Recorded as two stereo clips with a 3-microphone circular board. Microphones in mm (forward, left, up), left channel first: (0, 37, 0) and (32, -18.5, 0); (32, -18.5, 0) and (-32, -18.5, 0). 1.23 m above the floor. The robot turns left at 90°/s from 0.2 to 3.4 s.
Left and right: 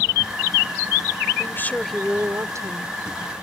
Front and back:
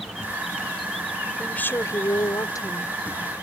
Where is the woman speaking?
85° left; by 2.9 s 60° right.